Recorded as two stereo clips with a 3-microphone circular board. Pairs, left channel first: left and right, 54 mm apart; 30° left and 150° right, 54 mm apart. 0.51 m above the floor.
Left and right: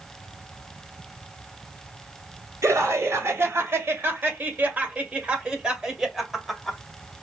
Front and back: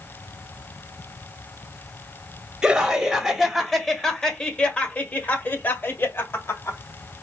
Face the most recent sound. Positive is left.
turn(degrees=0)